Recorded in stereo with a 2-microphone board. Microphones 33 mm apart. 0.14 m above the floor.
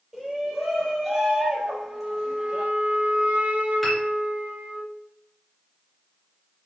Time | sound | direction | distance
0.1 | a shout | 5° right (ahead or behind) | 4 m
1.6 | a flute | 40° right (ahead or behind) | 2 m
3.8 | a piano | 5° left (ahead or behind) | 2.5 m